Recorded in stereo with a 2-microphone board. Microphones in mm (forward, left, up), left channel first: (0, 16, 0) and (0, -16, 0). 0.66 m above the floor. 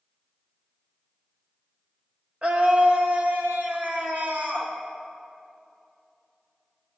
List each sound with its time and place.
2.4 s a scream: 35° right (ahead or behind), 1.3 m; by 4.7 s 60° right (ahead or behind), 2.5 m